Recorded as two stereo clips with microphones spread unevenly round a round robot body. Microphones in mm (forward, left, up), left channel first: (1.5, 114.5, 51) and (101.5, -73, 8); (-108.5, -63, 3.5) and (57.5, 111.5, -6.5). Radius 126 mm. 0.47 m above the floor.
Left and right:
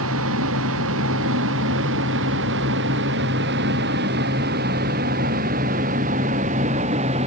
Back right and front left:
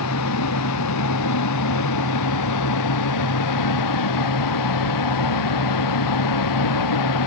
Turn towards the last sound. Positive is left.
turn(degrees=-130)